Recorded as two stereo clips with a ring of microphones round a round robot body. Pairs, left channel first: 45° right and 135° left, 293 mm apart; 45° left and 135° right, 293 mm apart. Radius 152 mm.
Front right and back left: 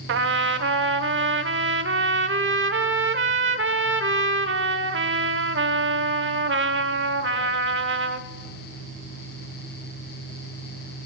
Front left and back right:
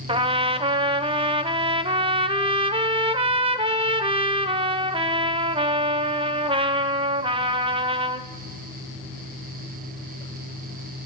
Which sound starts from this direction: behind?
A trumpet, at 0.1 s.